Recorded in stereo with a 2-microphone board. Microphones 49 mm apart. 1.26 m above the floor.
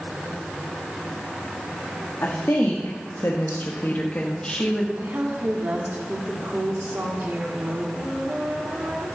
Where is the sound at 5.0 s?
45° right (ahead or behind), 2.5 m.